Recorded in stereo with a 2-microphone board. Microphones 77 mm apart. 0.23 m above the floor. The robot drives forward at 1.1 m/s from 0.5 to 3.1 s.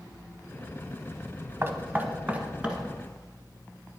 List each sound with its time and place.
1.6 s knocking: 35° right (ahead or behind), 0.8 m; by 4.0 s 15° right (ahead or behind), 2 m